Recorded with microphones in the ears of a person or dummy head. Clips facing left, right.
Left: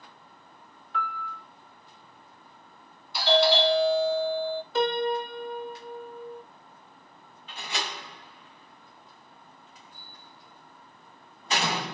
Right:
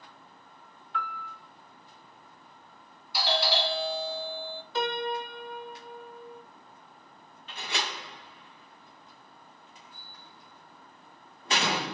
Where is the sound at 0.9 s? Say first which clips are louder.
Left 3 dB; 35° left (ahead or behind), 1.2 m.